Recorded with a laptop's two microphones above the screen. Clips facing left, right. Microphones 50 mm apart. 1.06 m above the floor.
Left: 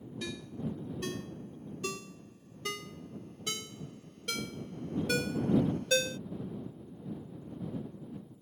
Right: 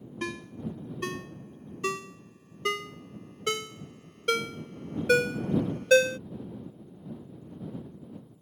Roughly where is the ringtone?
Right.